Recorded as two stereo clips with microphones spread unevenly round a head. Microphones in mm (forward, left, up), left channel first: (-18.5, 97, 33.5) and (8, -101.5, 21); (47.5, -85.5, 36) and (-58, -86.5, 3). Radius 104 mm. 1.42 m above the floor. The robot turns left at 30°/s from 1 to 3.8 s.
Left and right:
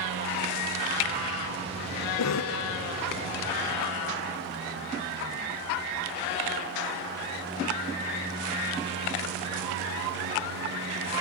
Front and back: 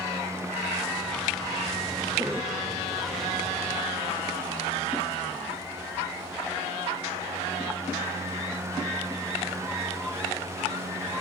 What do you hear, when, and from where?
2.2 s a cough: 100° left, 0.8 m; by 2.6 s 90° left, 0.8 m